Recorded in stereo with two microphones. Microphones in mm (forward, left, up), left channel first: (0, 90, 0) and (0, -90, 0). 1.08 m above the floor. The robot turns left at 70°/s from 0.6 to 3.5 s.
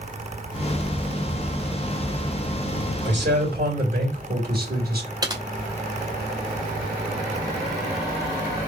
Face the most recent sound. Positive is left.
turn(degrees=-20)  # may be behind; listen again after turning